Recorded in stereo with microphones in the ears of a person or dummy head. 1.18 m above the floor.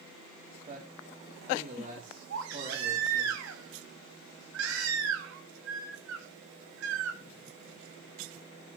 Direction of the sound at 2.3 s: 75° right (ahead or behind).